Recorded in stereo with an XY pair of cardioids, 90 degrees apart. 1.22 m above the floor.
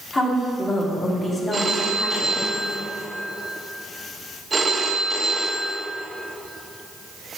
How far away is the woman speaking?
About 2.5 m.